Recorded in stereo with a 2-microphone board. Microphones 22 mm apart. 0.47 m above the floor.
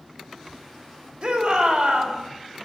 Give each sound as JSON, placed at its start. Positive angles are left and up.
{"t": 1.2, "sound": "a shout", "side_deg": -55, "distance_m": 2.5}